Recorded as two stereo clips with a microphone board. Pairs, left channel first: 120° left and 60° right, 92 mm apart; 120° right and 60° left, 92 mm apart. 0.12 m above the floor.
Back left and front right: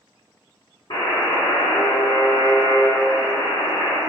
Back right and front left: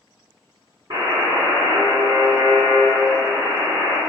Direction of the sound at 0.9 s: 95° left.